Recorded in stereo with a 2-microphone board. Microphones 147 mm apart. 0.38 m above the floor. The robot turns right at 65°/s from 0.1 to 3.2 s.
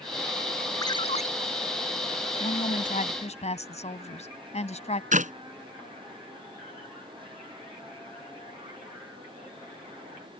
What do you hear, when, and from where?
0.8 s a ringtone: 25° left; by 1.3 s 55° left
2.4 s a woman speaking: 75° left; by 5.0 s 125° left
5.1 s a clap: 60° right (ahead or behind)